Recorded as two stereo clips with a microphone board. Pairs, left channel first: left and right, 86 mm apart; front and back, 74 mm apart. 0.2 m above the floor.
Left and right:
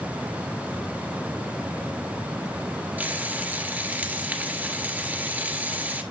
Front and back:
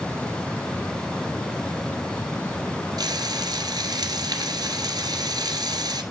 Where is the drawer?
No drawer in this recording.